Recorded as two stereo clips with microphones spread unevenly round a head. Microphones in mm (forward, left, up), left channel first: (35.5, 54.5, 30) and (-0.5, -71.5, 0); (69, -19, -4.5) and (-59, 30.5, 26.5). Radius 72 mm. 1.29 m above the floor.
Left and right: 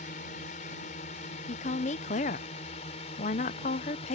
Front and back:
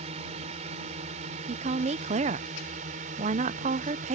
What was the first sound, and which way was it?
A drone, 115° left.